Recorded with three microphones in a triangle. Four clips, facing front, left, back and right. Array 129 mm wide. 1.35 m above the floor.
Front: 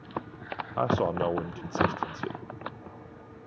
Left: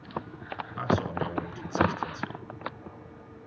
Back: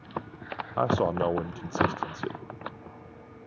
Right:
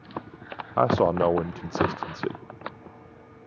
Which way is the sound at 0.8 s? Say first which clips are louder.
Right 8 dB, back 1 dB; 95° right.